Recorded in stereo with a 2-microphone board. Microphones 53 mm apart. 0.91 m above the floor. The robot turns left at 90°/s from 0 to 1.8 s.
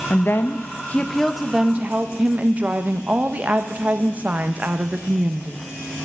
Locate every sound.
0.1 s a woman speaking: 115° left, 0.6 m; by 5.6 s 40° right, 0.6 m